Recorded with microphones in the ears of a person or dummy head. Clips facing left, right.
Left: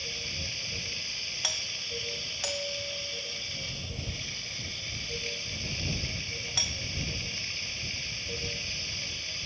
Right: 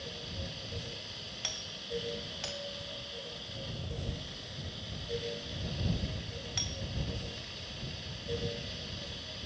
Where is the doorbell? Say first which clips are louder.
Left 1 dB; 60° left (ahead or behind).